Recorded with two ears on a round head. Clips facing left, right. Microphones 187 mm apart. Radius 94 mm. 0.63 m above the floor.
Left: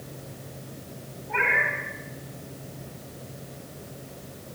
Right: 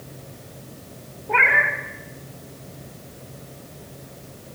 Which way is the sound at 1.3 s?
70° right (ahead or behind).